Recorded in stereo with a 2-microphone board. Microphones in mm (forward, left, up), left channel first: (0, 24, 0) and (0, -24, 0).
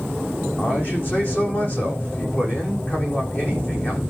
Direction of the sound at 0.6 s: 40° left (ahead or behind).